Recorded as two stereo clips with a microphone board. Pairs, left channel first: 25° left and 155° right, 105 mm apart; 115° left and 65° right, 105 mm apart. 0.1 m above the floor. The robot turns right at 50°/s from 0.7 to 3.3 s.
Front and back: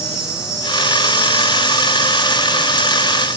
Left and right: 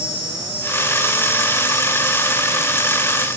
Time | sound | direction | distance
0.0 | an insect | 145° left | 2 m